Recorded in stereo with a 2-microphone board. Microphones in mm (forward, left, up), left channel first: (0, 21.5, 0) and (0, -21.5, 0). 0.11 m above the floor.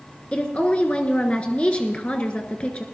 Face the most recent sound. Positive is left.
turn(degrees=30)  # may be behind; listen again after turning